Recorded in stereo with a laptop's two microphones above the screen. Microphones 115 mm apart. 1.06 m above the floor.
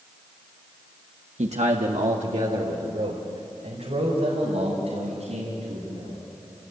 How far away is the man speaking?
About 1.3 m.